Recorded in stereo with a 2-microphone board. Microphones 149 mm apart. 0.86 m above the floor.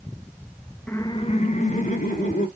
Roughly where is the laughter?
Centre.